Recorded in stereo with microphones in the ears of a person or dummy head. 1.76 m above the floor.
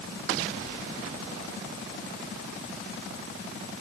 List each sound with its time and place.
Only background noise.